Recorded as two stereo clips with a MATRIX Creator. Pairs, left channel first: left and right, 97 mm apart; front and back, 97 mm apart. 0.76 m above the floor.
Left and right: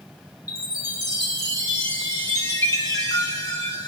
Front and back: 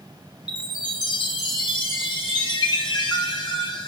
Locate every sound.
0.5 s a chime: 35° left, 4 m